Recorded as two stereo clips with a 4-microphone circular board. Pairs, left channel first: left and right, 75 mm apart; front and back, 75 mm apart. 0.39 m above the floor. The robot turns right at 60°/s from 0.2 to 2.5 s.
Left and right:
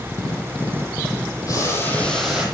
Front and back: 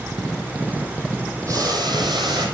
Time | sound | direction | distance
1.5 | boiling | 135° left | 9.5 m